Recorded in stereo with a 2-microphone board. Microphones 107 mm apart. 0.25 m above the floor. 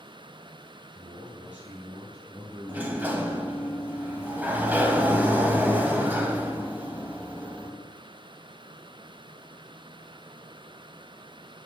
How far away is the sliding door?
About 1.0 m.